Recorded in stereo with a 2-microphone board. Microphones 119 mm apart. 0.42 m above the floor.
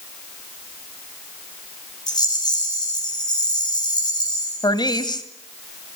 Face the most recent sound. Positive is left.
turn(degrees=35)  # may be behind; listen again after turning